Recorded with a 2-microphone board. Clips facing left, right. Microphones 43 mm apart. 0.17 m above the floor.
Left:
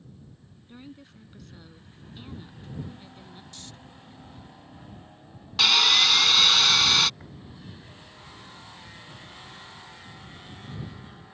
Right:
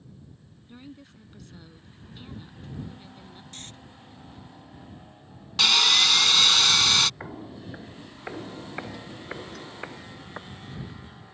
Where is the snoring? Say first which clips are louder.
Right 4 dB; 45° right (ahead or behind).